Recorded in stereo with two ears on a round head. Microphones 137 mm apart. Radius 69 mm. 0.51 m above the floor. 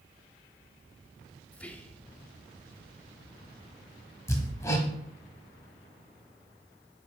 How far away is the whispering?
About 0.6 m.